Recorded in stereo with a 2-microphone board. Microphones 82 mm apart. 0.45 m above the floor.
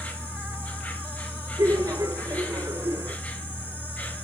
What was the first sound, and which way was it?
An insect, 20° left (ahead or behind).